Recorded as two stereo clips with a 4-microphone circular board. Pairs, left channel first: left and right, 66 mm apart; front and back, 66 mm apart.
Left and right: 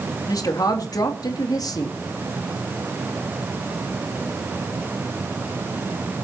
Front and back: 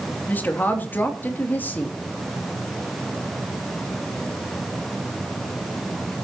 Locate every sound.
0.3 s a woman speaking: 65° left, 3 m